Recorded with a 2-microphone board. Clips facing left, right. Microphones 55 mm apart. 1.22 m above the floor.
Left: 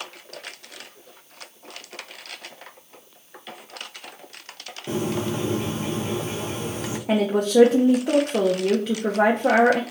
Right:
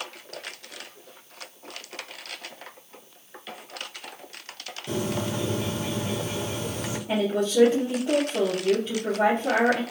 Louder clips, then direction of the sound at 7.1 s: Left 4 dB; 80° left.